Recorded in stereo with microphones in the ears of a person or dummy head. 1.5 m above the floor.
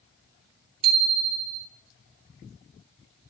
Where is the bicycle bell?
30° right (ahead or behind), 3.5 m.